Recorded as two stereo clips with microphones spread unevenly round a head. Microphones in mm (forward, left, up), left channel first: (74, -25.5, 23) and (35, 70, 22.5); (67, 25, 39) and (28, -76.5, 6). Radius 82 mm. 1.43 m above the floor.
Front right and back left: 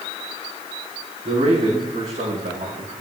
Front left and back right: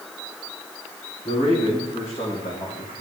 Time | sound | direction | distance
1.2 | a man speaking | 120° left | 4 m